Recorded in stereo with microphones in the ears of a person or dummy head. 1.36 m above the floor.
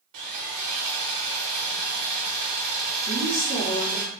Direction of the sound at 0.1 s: 30° right (ahead or behind).